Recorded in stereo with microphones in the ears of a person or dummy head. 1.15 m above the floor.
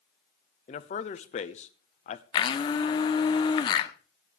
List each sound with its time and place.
0.7 s a man speaking: 40° left (ahead or behind), 0.8 m
2.3 s a blender: 25° left (ahead or behind), 1.1 m